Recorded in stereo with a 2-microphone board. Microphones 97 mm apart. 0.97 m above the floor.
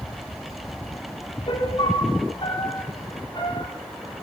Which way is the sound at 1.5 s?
60° left (ahead or behind).